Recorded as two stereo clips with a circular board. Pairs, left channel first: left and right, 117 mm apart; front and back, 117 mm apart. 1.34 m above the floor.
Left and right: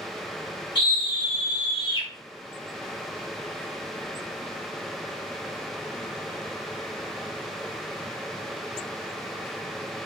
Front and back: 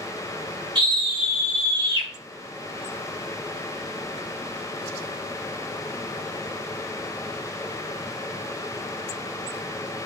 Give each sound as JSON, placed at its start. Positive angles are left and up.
{"t": 0.8, "sound": "a scream", "azimuth_deg": 130, "distance_m": 2.0}